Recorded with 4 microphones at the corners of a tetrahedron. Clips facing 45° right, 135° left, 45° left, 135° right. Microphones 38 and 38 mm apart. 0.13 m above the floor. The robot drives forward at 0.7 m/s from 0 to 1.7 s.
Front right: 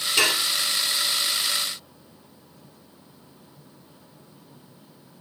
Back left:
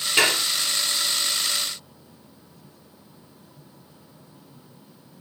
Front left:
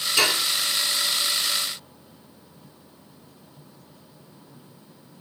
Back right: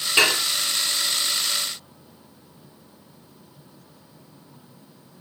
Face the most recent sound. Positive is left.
turn(degrees=180)